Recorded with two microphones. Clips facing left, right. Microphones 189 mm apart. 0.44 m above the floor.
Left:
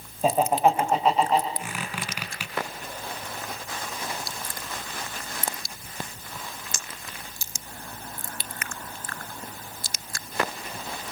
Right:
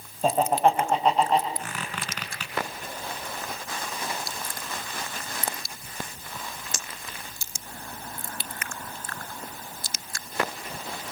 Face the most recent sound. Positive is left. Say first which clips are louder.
# left 1 dB
turn(degrees=10)  # may be behind; listen again after turning